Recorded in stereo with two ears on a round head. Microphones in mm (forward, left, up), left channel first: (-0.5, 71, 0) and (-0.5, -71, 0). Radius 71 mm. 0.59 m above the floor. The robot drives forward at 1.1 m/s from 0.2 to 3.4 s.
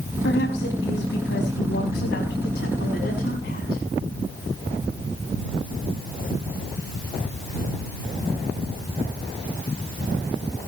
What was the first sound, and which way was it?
A woman speaking, 75° left (ahead or behind).